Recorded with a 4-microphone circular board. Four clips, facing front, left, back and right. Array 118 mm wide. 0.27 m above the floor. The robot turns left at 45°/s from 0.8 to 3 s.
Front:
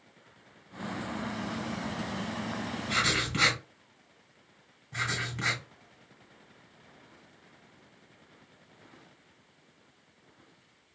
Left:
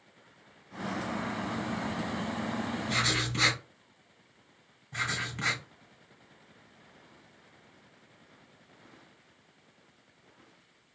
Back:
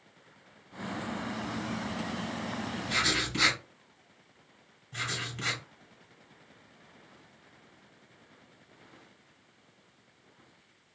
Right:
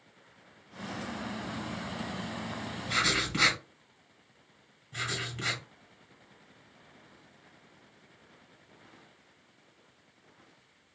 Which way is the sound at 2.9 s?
55° right.